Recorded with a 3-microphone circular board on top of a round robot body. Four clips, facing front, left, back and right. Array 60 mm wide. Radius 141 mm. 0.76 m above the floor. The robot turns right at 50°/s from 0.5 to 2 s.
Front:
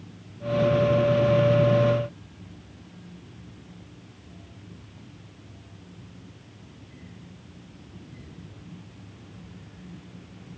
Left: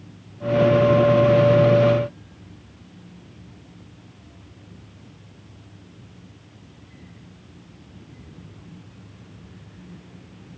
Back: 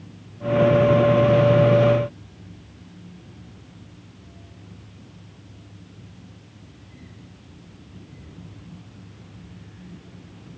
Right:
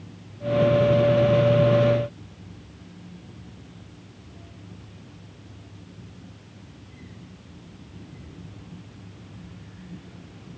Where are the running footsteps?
No running footsteps in this recording.